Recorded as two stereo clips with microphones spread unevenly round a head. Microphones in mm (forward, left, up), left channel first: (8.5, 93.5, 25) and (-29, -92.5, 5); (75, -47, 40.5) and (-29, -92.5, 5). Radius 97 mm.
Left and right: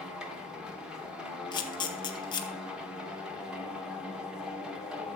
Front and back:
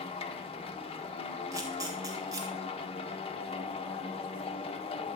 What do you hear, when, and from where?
0.0 s a machine running: 15° right, 1.2 m
1.5 s a camera shutter: 145° left, 1.3 m